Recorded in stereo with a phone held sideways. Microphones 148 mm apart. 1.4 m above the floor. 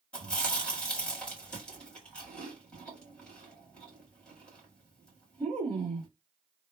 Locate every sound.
0.1 s chewing: 5° left (ahead or behind), 1.9 m